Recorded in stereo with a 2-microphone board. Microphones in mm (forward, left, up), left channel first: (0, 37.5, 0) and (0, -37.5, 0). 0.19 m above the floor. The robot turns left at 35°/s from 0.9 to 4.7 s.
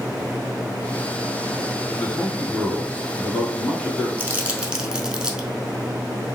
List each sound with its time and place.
2.0 s a man speaking: 85° left, 1.3 m; by 4.1 s 10° left, 1.3 m
4.2 s crumpling: 30° right (ahead or behind), 0.6 m; by 5.5 s 10° right (ahead or behind), 0.6 m